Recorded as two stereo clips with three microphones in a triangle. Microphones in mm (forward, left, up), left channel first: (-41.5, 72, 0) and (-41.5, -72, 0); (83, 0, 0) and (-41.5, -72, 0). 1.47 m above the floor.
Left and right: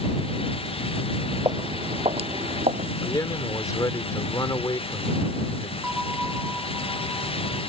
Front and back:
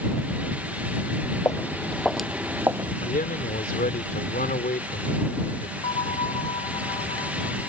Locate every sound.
1.4 s footsteps: 35° right; by 2.9 s 90° right
3.0 s a man speaking: 25° left
5.8 s a bell: 5° right